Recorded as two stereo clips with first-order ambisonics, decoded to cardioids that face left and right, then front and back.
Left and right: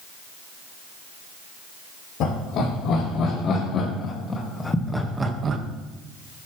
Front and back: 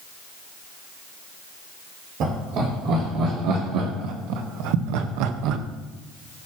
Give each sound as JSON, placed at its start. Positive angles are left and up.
{"t": 2.2, "sound": "laughter", "azimuth_deg": 135, "distance_m": 4.5}